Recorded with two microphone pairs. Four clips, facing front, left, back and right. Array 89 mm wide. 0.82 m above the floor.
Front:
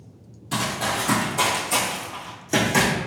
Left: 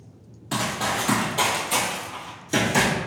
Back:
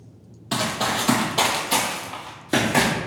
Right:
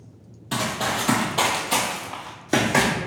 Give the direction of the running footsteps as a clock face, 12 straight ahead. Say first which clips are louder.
Even, back 1 dB; 7 o'clock.